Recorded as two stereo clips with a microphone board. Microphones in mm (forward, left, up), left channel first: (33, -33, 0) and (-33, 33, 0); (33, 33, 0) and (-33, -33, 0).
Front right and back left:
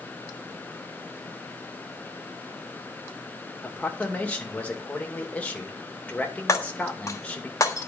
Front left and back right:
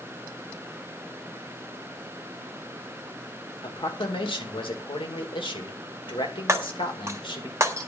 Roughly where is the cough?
I don't hear a cough.